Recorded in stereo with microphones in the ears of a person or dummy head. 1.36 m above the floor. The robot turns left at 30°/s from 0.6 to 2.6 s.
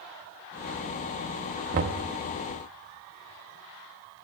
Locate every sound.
1.7 s knocking: 40° right (ahead or behind), 1.2 m; by 2.1 s 30° right (ahead or behind), 1.2 m